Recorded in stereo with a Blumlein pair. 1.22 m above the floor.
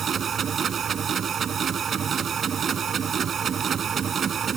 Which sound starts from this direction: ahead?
A machine running, at 0.0 s.